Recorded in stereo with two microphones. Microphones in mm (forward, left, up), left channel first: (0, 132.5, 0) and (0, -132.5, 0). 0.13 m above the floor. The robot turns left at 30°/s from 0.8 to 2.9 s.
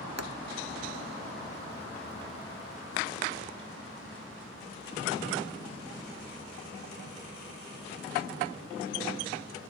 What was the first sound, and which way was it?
A pop, 70° right (ahead or behind).